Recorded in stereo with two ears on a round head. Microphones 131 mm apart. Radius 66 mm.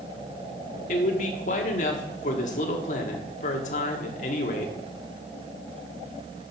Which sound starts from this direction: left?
A man speaking, at 0.9 s.